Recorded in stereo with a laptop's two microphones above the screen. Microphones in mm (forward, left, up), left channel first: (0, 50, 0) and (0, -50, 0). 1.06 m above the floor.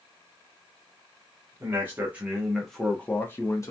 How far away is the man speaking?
About 1.0 m.